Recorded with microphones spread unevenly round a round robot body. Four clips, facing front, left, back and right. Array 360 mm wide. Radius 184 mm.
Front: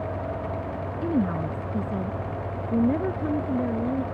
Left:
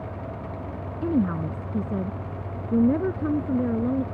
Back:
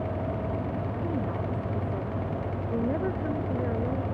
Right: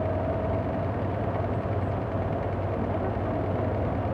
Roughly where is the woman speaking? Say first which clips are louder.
Left 5 dB, front 9 dB; left.